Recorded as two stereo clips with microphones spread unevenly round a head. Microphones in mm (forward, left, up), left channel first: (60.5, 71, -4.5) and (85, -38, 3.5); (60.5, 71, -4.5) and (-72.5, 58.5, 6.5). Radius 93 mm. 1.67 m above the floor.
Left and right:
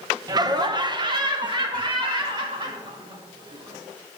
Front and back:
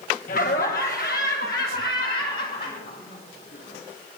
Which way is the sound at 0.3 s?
30° right.